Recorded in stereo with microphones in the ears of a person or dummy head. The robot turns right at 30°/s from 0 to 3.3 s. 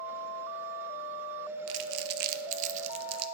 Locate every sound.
1.7 s crumpling: 75° right (ahead or behind), 0.6 m; by 3.2 s 35° right (ahead or behind), 0.6 m